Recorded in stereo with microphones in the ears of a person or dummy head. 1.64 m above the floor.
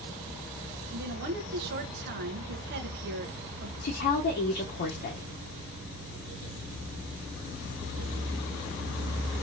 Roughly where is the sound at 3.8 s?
Left.